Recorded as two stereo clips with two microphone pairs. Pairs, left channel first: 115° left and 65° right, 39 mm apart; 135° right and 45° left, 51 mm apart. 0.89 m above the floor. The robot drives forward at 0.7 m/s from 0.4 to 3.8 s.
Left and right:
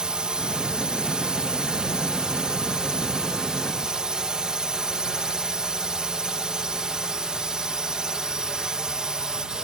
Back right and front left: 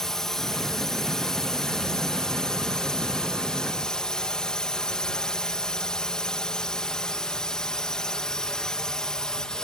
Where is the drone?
70° right; by 9.6 s 85° right.